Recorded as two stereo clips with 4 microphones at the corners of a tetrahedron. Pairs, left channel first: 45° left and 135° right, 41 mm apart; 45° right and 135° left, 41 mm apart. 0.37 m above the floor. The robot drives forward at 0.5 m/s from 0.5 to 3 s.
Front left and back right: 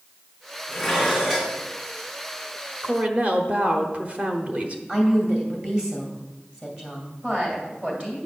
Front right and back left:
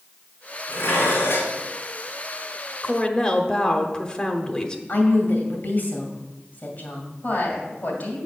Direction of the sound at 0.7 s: 45° right.